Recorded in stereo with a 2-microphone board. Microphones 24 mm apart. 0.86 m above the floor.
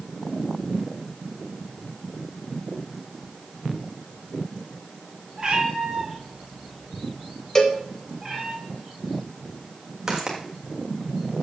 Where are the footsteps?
25° right (ahead or behind), 2.5 m.